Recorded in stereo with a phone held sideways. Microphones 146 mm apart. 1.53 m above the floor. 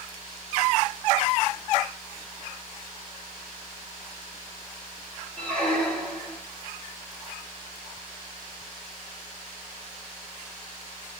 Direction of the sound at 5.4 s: 10° left (ahead or behind).